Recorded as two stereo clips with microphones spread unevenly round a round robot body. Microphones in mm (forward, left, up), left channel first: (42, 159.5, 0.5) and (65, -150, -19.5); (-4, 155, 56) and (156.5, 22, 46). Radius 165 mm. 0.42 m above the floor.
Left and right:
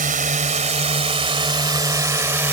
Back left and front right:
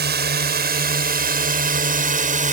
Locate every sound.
0.0 s a drone: 30° right; by 2.5 s 5° right